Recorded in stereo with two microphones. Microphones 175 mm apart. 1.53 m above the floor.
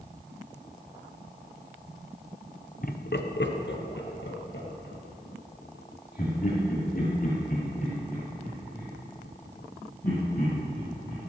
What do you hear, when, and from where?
2.8 s laughter: 50° left (ahead or behind), 1.0 m; by 11.2 s 55° left (ahead or behind), 10 m